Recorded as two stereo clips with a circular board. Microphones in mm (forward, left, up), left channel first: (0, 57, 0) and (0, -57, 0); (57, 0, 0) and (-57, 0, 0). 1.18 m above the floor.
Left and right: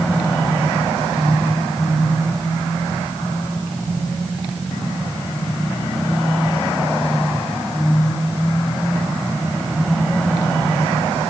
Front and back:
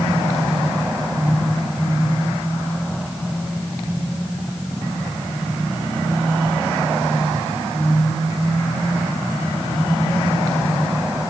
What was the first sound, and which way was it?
Only background noise.